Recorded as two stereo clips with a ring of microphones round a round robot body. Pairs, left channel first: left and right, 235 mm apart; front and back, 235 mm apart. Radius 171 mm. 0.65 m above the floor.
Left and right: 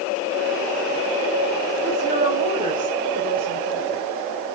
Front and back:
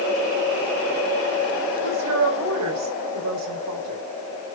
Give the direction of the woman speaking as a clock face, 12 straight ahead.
5 o'clock.